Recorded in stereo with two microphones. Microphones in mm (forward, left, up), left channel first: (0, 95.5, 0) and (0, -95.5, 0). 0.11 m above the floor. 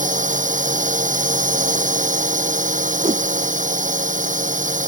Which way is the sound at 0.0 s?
40° right (ahead or behind).